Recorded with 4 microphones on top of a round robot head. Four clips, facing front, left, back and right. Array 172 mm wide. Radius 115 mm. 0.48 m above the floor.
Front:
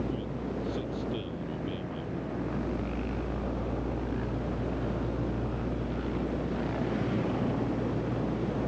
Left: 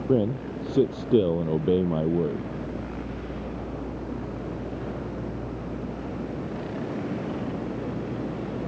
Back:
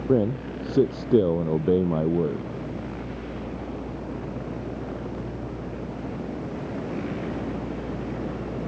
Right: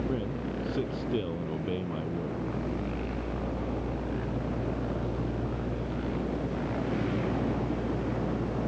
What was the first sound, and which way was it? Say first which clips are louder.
A man speaking: left 8 dB, back 11 dB; 145° left.